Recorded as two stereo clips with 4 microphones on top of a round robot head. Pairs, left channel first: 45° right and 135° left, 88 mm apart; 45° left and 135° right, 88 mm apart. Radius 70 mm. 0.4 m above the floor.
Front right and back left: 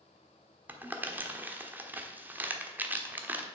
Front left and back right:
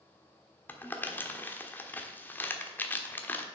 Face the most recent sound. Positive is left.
turn(degrees=90)